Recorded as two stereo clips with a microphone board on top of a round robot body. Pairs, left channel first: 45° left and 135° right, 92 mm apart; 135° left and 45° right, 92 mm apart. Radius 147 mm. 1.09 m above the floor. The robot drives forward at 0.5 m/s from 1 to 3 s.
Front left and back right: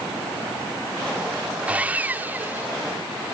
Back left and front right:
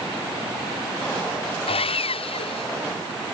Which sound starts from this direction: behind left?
Sawing, at 1.7 s.